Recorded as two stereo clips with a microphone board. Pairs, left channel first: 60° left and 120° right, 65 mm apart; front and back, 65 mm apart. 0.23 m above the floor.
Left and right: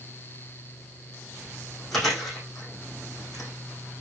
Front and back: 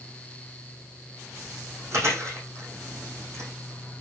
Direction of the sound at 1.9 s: 140° left.